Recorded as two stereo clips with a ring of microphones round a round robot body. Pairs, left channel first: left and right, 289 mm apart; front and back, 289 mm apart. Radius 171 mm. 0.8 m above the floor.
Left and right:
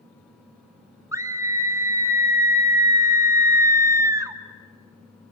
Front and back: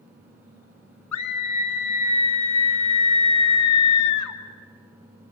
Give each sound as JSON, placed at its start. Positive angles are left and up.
{"t": 1.1, "sound": "a scream", "azimuth_deg": -10, "distance_m": 2.5}